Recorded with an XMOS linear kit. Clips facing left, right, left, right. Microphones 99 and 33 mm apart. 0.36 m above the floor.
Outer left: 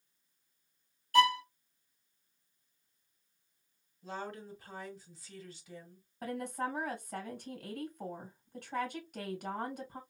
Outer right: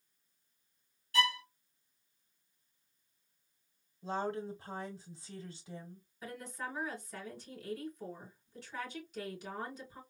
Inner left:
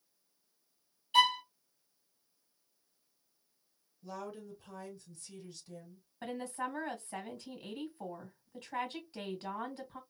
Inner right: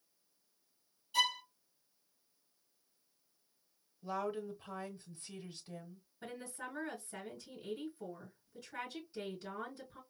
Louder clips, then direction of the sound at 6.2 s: Outer left 7 dB, inner left 7 dB; 60° left (ahead or behind).